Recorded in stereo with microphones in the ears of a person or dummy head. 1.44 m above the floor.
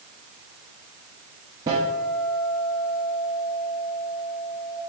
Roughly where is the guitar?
Centre.